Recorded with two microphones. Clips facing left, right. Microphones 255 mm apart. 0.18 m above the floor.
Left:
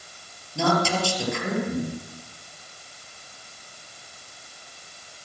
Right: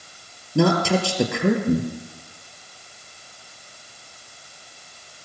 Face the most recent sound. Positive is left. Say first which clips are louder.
# right 5 dB
turn(degrees=-65)  # may be behind; listen again after turning